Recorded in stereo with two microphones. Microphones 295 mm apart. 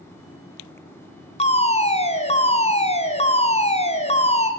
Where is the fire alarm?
20° left (ahead or behind), 2.5 m.